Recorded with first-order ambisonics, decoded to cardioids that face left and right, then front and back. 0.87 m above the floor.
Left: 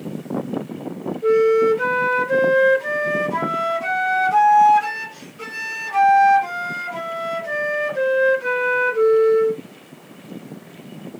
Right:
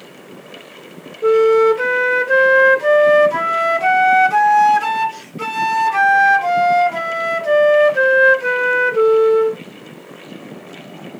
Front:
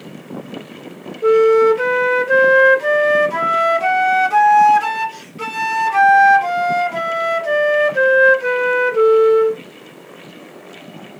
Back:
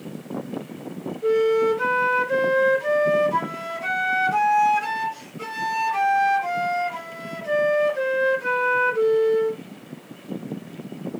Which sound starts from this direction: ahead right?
A flute, at 1.2 s.